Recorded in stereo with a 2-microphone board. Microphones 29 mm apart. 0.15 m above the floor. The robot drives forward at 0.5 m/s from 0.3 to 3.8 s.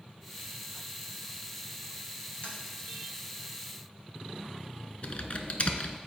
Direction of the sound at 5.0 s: 50° left (ahead or behind).